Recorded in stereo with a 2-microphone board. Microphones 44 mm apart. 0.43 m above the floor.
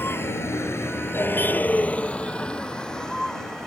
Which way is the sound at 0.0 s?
60° left (ahead or behind).